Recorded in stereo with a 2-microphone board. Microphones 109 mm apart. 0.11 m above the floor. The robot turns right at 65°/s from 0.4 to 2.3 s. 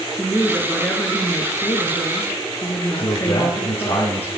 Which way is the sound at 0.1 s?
5° right.